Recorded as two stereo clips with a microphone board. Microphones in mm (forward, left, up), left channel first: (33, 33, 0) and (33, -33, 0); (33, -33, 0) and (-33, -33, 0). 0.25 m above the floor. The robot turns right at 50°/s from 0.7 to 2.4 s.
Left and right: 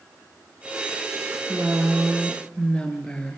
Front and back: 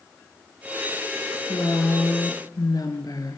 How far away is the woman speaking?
About 3.5 m.